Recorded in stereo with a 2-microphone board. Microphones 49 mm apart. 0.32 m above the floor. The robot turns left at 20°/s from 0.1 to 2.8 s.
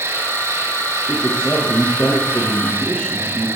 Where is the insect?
65° right, 6.5 m; by 3.6 s 120° right, 6.5 m.